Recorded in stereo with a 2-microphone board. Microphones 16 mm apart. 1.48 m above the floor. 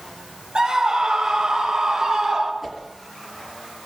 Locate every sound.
0.6 s a scream: 65° right (ahead or behind), 6.5 m; by 2.5 s 45° right (ahead or behind), 5 m
2.6 s a whoosh: 10° right (ahead or behind), 6 m